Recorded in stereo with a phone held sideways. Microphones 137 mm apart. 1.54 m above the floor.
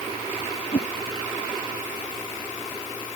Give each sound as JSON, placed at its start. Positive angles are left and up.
{"t": 0.7, "sound": "a whoosh", "side_deg": 45}